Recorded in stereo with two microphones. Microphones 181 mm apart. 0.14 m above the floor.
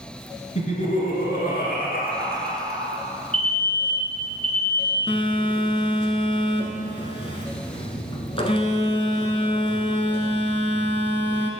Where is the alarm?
35° right (ahead or behind), 1.3 m.